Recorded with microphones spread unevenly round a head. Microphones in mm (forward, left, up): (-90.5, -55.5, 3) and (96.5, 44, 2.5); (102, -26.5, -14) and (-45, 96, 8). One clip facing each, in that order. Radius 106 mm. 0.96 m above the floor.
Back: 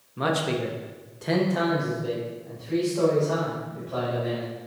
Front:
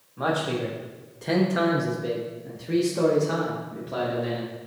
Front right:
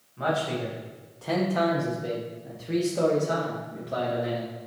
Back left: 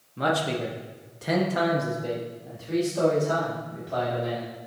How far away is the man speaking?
About 1.0 m.